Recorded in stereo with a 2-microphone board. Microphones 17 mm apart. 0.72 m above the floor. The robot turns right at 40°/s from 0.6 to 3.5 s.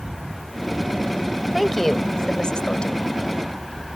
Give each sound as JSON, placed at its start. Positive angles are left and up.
{"t": 1.5, "sound": "a woman speaking", "azimuth_deg": 15}